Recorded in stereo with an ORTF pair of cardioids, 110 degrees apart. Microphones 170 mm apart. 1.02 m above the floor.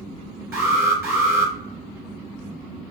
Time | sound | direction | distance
0.5 | an alarm | 20° right | 2 m